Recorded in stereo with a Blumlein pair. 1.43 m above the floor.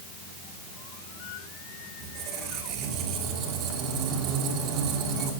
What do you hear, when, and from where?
2.0 s a squeak: 35° right, 2.5 m